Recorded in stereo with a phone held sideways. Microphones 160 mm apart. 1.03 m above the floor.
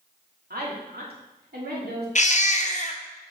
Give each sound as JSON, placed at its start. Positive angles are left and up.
{"t": 0.5, "sound": "a woman speaking", "side_deg": -75, "distance_m": 2.0}
{"t": 2.1, "sound": "a baby crying", "side_deg": 50, "distance_m": 0.7}